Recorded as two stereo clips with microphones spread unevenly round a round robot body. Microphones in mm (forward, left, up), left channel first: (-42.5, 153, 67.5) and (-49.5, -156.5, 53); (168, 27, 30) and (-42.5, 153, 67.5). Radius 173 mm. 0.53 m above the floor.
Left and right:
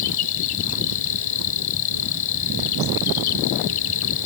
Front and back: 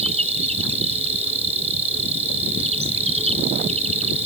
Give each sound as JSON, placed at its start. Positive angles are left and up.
{"t": 0.0, "sound": "an insect", "azimuth_deg": 85}